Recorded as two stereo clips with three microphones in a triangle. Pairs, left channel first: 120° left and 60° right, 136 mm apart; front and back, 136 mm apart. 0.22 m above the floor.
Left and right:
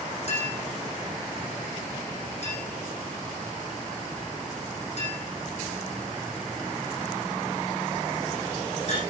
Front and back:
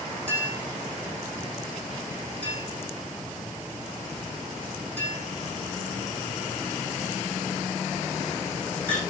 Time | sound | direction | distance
0.3 | a clink | 80° left | 6.5 m